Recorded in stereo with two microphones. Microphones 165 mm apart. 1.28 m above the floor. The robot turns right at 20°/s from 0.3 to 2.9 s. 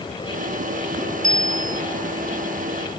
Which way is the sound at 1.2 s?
50° right (ahead or behind).